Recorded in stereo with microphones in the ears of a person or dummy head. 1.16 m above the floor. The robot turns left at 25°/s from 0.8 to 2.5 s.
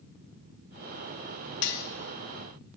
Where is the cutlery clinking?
55° left (ahead or behind), 0.9 m.